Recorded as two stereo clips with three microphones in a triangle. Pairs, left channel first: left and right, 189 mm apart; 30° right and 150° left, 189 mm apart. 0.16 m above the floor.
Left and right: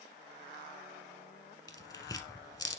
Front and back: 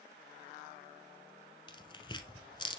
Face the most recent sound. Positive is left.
turn(degrees=25)